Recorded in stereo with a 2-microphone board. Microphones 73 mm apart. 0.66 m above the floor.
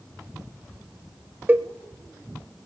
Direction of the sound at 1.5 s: 30° right (ahead or behind).